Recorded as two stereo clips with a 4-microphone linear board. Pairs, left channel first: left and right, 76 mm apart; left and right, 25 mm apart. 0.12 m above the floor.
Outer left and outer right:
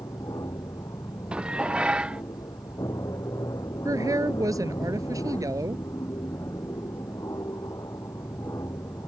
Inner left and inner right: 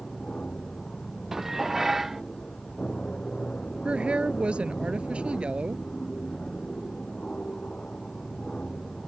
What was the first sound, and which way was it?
An aircraft, 60° left (ahead or behind).